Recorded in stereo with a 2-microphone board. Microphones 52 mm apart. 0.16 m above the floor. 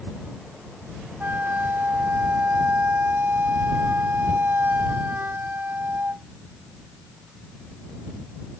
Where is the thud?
I don't hear a thud.